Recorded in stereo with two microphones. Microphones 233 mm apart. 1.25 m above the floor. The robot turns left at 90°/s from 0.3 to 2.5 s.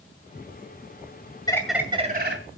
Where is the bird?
20° left, 2 m; by 2.4 s 60° right, 2 m.